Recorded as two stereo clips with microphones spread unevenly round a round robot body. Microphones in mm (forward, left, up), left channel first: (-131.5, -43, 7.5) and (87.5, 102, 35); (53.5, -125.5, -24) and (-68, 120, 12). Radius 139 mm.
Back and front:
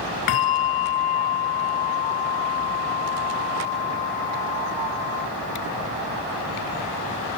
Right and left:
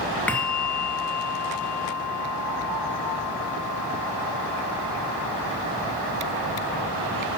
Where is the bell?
150° right, 0.8 m.